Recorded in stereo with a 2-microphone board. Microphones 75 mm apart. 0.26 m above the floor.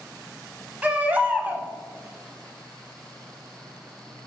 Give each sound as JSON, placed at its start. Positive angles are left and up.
{"t": 0.8, "sound": "a baby crying", "side_deg": -20, "distance_m": 0.6}